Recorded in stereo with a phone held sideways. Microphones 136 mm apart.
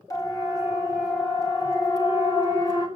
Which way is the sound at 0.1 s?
25° left (ahead or behind).